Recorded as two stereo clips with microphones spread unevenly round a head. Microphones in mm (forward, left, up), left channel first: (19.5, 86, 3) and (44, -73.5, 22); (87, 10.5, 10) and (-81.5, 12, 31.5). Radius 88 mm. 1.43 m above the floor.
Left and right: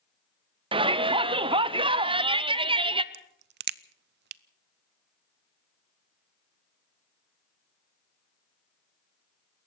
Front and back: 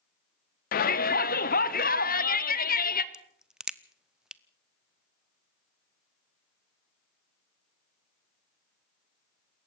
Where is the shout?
25° right, 0.9 m.